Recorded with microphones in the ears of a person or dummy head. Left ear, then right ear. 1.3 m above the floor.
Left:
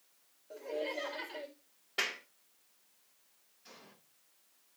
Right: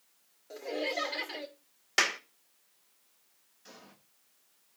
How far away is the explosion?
About 7.5 m.